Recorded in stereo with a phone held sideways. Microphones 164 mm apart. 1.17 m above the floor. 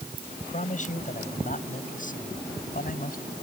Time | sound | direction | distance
0.3 | a man speaking | 45° left (ahead or behind) | ?